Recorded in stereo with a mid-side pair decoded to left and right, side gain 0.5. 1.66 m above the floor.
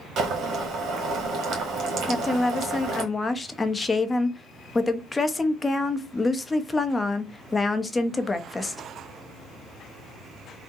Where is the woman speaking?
25° left, 0.7 m.